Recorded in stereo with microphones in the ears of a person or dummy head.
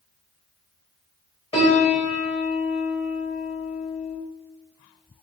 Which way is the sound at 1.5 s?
30° left (ahead or behind).